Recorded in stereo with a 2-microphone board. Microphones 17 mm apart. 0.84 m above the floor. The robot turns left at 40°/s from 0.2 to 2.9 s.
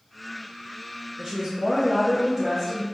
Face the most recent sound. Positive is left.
turn(degrees=160)